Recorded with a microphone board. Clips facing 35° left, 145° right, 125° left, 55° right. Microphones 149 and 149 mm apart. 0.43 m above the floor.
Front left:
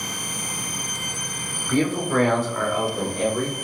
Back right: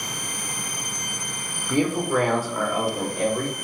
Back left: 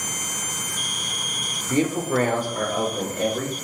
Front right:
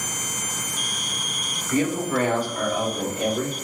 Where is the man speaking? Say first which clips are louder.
Even, back left 1 dB; 155° left, 0.8 m; by 3.6 s 130° left, 1.6 m.